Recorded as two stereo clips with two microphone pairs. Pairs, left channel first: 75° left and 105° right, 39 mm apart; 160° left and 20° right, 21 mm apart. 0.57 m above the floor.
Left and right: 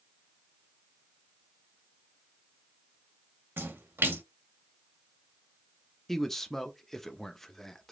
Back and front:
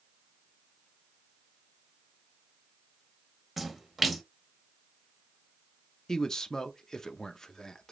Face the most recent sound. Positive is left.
turn(degrees=150)